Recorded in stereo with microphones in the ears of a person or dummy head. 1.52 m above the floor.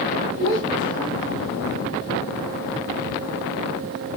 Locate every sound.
0.4 s a child speaking: 70° right (ahead or behind), 4.5 m; by 1.8 s 50° right (ahead or behind), 4.5 m